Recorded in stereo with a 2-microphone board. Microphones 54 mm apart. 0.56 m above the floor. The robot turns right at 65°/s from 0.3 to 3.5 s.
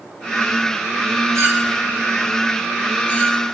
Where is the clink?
70° right (ahead or behind), 6.5 m; by 3.4 s 65° left (ahead or behind), 6.5 m.